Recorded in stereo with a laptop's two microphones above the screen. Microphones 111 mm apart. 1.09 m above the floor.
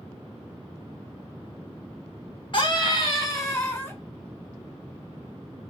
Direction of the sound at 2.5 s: 45° left (ahead or behind).